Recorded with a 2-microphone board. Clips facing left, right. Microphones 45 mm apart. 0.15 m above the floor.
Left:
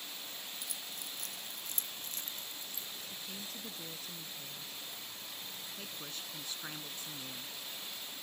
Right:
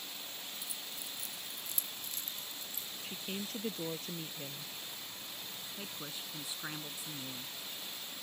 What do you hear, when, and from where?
0.6 s keys jangling: 60° left (ahead or behind); by 2.9 s 40° left (ahead or behind)
3.0 s a woman speaking: 50° right (ahead or behind)
5.8 s a woman speaking: 10° right (ahead or behind)